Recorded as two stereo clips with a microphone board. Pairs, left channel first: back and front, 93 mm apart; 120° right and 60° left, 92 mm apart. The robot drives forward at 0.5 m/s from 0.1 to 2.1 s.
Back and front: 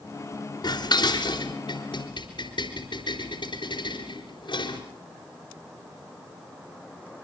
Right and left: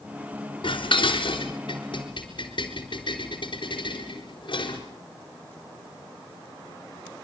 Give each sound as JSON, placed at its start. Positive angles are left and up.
{"t": 0.6, "sound": "dishes clattering", "azimuth_deg": -145, "distance_m": 3.5}